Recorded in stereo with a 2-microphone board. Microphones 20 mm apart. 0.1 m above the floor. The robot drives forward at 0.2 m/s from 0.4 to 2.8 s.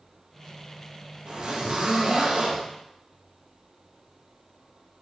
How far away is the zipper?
About 3.5 m.